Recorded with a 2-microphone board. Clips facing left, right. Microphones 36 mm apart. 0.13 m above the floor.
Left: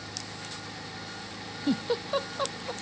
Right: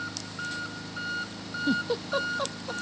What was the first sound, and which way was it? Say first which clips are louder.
An engine running: right 5 dB; 75° right (ahead or behind).